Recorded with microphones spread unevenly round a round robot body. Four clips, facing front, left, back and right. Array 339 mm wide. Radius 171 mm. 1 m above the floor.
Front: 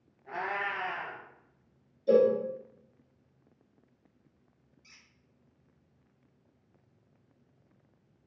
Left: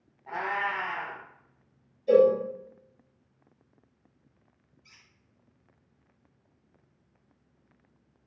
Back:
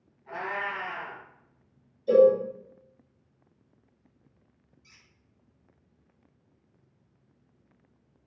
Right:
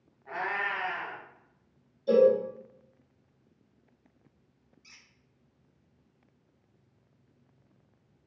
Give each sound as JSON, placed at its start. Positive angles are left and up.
{"t": 0.3, "sound": "a cat meowing", "azimuth_deg": 40, "distance_m": 1.7}
{"t": 2.1, "sound": "a cowbell", "azimuth_deg": -35, "distance_m": 1.8}
{"t": 4.8, "sound": "a squeak", "azimuth_deg": -105, "distance_m": 0.5}